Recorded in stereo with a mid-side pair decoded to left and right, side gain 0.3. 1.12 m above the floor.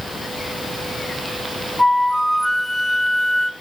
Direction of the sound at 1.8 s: 15° left.